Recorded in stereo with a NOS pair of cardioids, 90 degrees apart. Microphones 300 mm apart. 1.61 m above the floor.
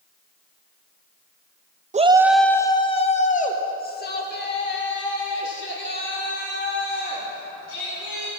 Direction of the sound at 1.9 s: 25° right.